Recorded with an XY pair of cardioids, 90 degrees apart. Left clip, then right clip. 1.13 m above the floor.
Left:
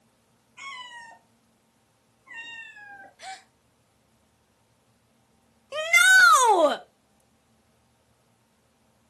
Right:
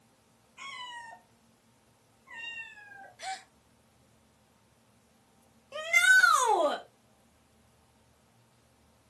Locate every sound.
0.6 s a cat meowing: 45° left, 4 m; by 3.1 s 50° left, 3 m
3.2 s a gasp: 10° right, 0.7 m
5.7 s a shout: 70° left, 1.0 m